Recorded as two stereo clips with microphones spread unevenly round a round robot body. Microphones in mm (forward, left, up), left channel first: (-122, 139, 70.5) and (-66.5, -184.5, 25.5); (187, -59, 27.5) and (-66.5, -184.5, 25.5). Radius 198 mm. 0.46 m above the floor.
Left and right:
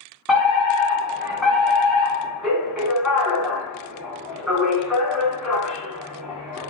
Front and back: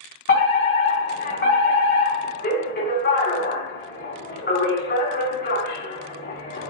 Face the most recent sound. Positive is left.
turn(degrees=0)